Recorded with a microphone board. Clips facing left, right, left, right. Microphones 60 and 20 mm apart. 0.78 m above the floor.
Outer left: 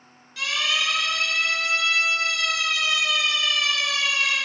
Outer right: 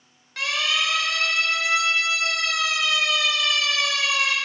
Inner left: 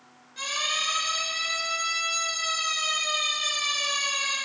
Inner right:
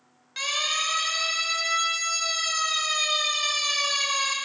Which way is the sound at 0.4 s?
55° right (ahead or behind).